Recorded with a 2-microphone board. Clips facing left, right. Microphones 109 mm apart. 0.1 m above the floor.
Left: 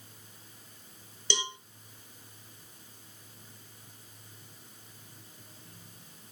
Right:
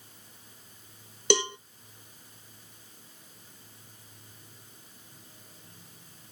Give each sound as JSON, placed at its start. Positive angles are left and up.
{"t": 1.3, "sound": "a cowbell", "side_deg": -65, "distance_m": 0.5}